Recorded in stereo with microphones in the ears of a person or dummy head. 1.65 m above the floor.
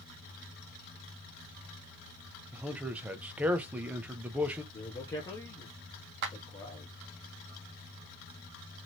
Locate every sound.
2.5 s a man speaking: 10° right (ahead or behind), 0.6 m
4.7 s a man speaking: 10° left (ahead or behind), 0.6 m
6.2 s a clap: 50° right (ahead or behind), 0.7 m